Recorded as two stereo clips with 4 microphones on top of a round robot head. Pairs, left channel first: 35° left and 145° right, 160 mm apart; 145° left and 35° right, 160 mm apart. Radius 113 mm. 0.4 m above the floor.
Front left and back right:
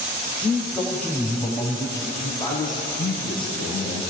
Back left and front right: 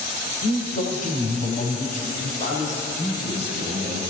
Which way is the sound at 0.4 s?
125° left.